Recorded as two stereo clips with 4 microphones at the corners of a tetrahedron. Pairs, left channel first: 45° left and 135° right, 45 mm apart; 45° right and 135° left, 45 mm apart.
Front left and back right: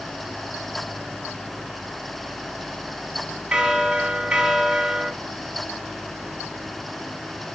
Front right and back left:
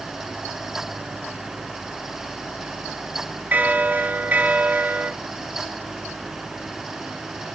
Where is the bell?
155° left, 0.9 m.